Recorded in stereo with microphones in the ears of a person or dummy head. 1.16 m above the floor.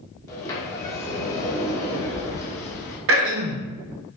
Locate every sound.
0.3 s a sliding door: 20° left (ahead or behind), 0.7 m
3.1 s throat clearing: 65° right (ahead or behind), 0.6 m